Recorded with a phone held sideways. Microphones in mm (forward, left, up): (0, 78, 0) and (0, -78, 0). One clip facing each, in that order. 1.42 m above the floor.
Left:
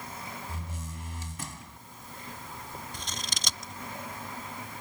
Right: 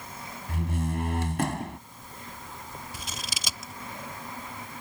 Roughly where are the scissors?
Centre.